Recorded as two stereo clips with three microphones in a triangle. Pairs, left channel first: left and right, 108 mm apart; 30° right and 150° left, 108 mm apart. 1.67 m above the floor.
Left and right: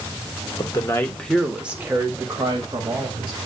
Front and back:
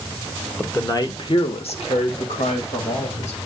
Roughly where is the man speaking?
Ahead left.